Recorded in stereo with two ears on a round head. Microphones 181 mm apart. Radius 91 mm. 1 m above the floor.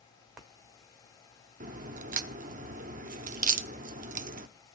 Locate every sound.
1.6 s a crack: 40° right (ahead or behind), 0.7 m